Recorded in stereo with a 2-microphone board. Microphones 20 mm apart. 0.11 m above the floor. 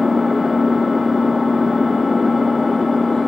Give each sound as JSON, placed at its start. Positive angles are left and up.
{"t": 0.0, "sound": "an engine running", "side_deg": 15, "distance_m": 1.5}